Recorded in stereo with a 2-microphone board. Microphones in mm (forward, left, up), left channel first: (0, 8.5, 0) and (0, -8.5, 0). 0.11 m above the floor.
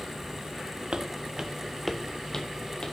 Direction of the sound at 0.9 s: 55° right (ahead or behind).